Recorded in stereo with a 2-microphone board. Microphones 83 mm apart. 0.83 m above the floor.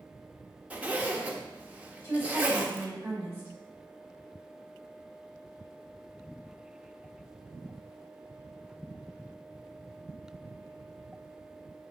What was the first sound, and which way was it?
A zipper, 20° right (ahead or behind).